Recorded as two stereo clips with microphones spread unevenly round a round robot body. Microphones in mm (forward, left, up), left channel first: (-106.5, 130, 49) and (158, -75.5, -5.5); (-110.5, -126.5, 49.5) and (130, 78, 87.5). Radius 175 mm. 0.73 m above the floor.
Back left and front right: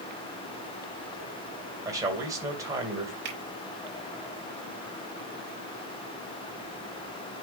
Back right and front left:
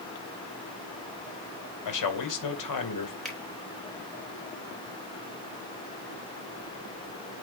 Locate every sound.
1.9 s a man speaking: 115° right, 2.5 m
3.2 s a finger snap: 50° right, 3.5 m